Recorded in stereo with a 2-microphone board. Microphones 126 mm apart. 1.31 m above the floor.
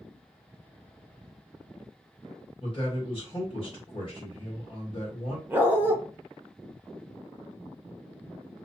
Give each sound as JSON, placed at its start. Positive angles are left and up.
{"t": 2.6, "sound": "a man speaking", "side_deg": 45, "distance_m": 1.3}
{"t": 5.5, "sound": "a dog barking", "side_deg": -15, "distance_m": 0.7}